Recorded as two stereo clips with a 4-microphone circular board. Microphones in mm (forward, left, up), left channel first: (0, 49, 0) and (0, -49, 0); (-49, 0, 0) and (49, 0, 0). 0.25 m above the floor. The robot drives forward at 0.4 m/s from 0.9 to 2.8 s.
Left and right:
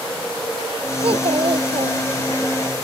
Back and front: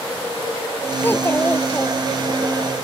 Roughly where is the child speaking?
Right.